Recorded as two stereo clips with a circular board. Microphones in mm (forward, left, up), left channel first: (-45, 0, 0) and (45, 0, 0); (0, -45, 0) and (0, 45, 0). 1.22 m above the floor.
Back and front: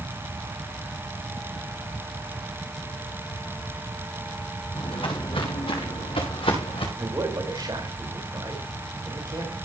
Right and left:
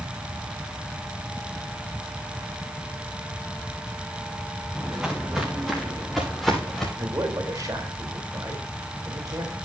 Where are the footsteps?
170° left, 6 m; by 6.9 s straight behind, 6.5 m.